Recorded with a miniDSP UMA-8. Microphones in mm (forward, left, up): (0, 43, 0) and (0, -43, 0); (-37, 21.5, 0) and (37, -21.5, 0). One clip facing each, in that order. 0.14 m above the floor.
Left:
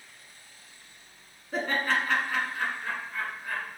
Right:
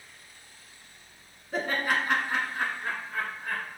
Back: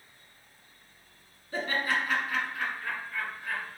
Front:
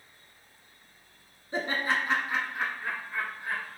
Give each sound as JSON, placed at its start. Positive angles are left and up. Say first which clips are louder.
{"t": 1.5, "sound": "laughter", "louder": "even, front 1 dB", "azimuth_deg": 0, "distance_m": 1.1}